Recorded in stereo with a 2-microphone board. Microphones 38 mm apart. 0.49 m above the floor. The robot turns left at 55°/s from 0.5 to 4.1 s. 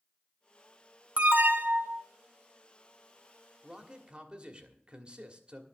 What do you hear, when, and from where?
1.2 s an alarm: 40° right, 0.8 m; by 2.0 s 90° right, 0.8 m
3.6 s a man speaking: 20° right (ahead or behind), 1.5 m; by 5.6 s 25° right (ahead or behind), 1.5 m